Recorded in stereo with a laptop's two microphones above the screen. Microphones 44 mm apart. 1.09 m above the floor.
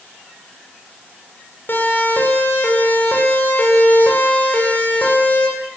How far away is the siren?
About 8 m.